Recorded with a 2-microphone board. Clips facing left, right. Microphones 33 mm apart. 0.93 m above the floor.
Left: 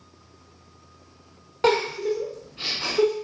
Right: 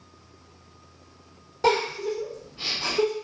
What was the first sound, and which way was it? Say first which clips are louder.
A giggle: left 2 dB; 55° left (ahead or behind).